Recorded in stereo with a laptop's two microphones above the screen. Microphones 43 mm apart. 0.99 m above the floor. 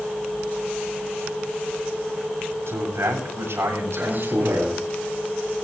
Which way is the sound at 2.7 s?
80° right.